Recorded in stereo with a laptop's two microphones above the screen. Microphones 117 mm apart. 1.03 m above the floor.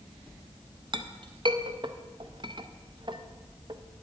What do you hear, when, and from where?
0.9 s a clink: 45° right (ahead or behind), 0.5 m